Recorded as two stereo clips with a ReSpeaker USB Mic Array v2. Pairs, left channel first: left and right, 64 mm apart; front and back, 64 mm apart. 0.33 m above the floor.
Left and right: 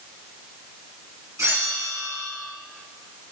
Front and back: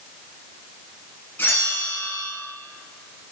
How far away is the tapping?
No tapping in this recording.